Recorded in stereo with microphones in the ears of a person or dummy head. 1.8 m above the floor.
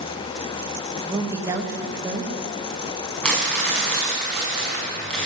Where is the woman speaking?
20° right (ahead or behind), 1.5 m.